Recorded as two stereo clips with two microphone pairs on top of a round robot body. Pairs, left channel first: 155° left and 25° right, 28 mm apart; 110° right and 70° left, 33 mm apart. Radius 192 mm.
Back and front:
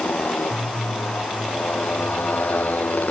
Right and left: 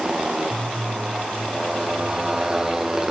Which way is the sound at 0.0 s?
140° left.